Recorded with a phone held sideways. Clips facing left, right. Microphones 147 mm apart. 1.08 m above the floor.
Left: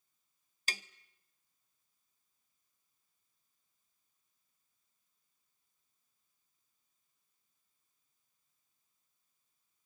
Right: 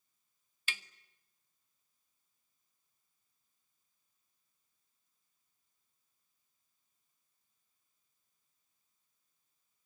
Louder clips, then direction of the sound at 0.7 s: Left 2 dB; 40° left (ahead or behind).